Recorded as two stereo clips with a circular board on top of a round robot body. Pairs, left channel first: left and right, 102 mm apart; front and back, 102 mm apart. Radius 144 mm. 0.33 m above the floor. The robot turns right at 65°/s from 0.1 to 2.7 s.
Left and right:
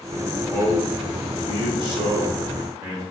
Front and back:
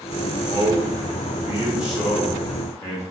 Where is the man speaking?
170° left, 1.1 m; by 3.0 s 45° right, 1.1 m.